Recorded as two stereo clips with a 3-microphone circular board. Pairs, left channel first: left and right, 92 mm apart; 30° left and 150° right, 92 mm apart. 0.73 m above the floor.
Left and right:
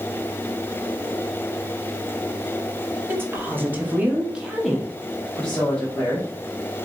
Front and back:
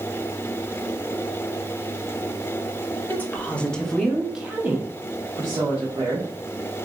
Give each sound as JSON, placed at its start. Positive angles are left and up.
{"t": 3.1, "sound": "a woman speaking", "azimuth_deg": -35, "distance_m": 0.9}